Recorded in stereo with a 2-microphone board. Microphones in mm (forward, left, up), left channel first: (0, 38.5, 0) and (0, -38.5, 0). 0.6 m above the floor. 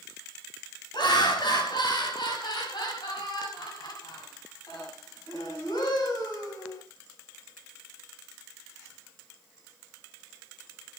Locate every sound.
0.9 s laughter: 80° left, 5 m; by 6.8 s 60° left (ahead or behind), 7 m